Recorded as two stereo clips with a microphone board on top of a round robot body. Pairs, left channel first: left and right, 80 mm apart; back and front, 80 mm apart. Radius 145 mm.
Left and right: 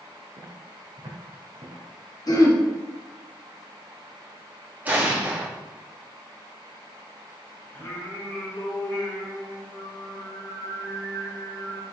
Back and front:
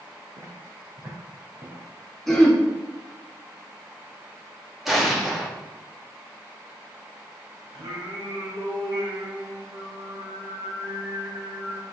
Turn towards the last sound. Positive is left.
turn(degrees=25)